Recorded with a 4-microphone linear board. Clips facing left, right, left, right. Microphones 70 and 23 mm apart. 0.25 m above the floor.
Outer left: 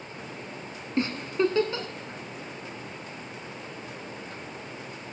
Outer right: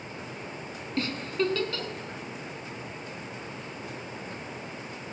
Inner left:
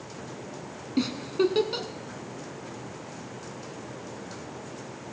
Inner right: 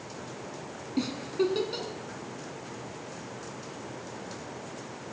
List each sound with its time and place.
1.0 s a giggle: 25° left (ahead or behind), 0.8 m